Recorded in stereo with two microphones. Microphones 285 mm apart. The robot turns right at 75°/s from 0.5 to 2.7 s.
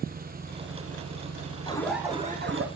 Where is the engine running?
145° right, 3 m; by 2.8 s 20° left, 3 m.